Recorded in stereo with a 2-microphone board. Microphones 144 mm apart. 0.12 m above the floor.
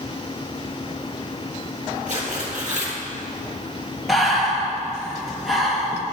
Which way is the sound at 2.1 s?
60° right (ahead or behind).